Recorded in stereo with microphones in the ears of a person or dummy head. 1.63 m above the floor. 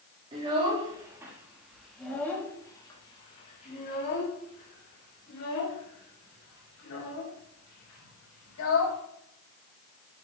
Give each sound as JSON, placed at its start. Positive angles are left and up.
{"t": 0.3, "sound": "a child speaking", "side_deg": -30, "distance_m": 2.5}